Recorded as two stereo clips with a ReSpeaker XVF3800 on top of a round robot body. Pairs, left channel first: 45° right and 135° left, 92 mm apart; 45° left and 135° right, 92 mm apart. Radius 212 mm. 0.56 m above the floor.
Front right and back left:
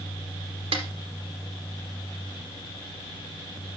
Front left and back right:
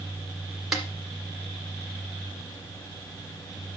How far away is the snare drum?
About 1.7 m.